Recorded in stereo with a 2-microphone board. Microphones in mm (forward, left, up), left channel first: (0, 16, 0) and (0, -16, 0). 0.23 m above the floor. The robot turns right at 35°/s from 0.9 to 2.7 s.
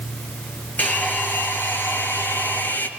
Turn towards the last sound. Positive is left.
turn(degrees=115)